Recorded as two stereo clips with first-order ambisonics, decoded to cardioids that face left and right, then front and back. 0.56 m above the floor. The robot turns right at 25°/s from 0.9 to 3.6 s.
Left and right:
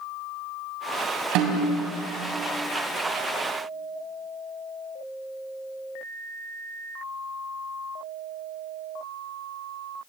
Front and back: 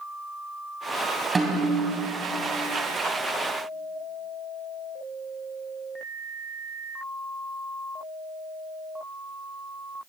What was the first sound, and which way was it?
A snare drum, 105° right.